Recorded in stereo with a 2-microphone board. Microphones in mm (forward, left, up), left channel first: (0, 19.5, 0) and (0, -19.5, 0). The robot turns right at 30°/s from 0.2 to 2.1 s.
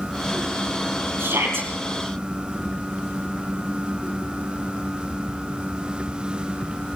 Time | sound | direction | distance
1.2 | a shout | 80° right | 8 m